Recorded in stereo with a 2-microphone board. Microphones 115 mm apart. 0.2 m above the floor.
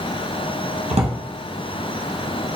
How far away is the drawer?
About 1.7 m.